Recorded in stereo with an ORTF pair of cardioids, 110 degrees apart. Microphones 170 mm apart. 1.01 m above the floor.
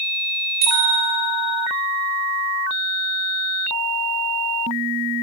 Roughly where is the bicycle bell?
Ahead right.